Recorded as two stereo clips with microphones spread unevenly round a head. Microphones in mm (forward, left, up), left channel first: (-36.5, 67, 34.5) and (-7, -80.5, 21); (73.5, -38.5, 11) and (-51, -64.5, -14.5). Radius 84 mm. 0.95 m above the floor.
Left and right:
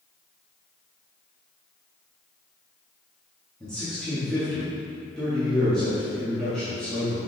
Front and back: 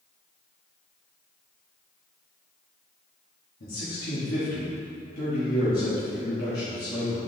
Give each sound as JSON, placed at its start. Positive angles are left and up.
{"t": 3.6, "sound": "a man speaking", "azimuth_deg": 15, "distance_m": 2.0}